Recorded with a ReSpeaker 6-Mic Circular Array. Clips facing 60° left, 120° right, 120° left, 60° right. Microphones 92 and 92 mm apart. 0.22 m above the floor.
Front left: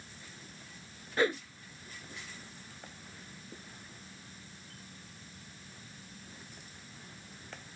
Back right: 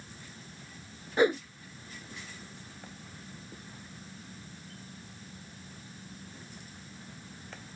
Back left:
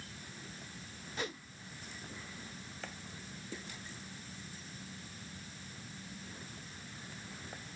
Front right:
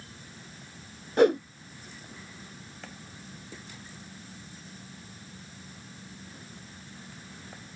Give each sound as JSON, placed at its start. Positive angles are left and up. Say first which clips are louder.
{"t": 1.2, "sound": "a whoosh", "louder": "back right 5 dB, front right 22 dB", "azimuth_deg": -50}